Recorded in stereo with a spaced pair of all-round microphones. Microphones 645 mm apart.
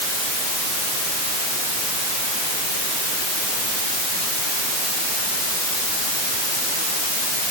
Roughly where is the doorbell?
I don't hear a doorbell.